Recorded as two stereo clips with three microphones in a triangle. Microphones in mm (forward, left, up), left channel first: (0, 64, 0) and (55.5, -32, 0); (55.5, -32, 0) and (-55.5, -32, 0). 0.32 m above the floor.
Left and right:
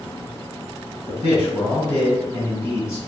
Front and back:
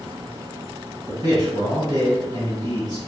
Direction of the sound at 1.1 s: 160° left.